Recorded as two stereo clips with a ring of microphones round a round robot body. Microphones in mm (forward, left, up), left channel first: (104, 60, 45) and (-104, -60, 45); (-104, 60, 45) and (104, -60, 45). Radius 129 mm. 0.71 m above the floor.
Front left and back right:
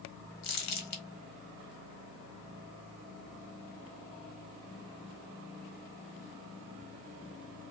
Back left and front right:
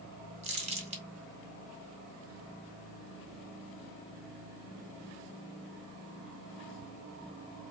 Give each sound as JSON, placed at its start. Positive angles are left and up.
{"t": 0.4, "sound": "crumpling", "azimuth_deg": 35, "distance_m": 1.7}